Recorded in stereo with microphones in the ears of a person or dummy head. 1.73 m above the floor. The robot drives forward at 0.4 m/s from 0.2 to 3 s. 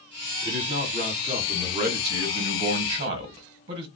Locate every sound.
0.4 s a man speaking: 35° right (ahead or behind), 1.7 m; by 3.9 s 60° right (ahead or behind), 1.2 m